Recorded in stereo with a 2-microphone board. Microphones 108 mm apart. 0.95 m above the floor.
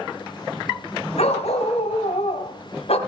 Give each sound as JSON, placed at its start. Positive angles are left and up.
{"t": 1.2, "sound": "a dog barking", "side_deg": 70, "distance_m": 2.5}